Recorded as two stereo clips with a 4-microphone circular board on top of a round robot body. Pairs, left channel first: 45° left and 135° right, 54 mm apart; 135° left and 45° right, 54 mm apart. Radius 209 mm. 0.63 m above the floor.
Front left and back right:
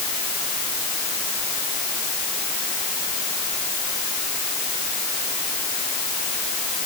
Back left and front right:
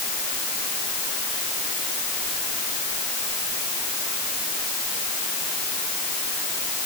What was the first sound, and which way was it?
Only background noise.